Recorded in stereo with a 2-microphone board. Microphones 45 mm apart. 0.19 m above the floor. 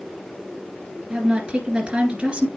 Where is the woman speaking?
25° right (ahead or behind), 3 m.